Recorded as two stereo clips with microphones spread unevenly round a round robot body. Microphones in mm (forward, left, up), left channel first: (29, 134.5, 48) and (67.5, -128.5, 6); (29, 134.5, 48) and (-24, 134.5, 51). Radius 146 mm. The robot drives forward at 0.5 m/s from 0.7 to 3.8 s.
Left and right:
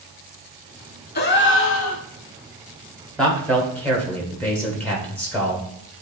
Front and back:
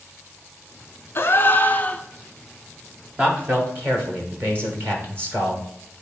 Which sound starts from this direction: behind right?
A man speaking, at 3.2 s.